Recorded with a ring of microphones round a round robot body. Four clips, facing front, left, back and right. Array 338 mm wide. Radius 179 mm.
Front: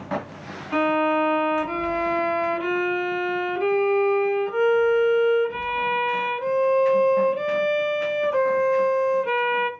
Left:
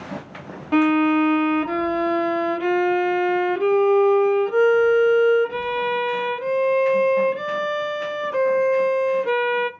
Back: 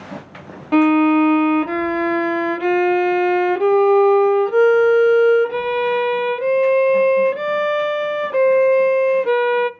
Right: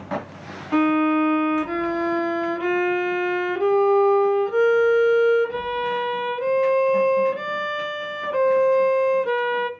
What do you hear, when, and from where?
0.7 s a violin: 175° left, 0.8 m